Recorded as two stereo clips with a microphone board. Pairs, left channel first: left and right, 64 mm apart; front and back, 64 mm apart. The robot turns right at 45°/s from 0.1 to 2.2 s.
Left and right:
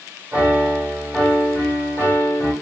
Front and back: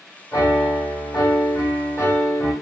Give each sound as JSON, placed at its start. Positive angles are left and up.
{"t": 0.3, "sound": "a piano", "azimuth_deg": -30, "distance_m": 1.8}